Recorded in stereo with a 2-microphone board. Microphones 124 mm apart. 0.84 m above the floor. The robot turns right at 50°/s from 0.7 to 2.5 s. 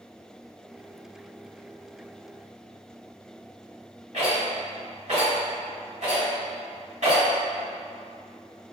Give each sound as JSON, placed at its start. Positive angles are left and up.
{"t": 4.1, "sound": "a rattle", "side_deg": -65, "distance_m": 1.9}